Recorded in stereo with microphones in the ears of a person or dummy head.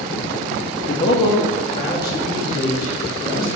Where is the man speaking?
35° left (ahead or behind), 0.7 m; by 3.5 s 10° left (ahead or behind), 2.5 m.